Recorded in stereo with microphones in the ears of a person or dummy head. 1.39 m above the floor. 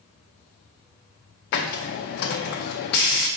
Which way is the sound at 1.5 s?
45° left (ahead or behind).